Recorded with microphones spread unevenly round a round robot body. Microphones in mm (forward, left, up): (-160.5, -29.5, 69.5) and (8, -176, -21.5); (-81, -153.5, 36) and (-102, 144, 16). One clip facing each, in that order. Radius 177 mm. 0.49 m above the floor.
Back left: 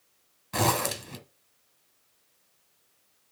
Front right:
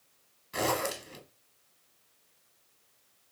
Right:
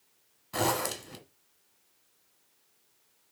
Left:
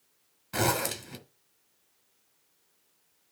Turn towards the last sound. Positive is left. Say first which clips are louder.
# back left 3 dB, left 1 dB
turn(degrees=155)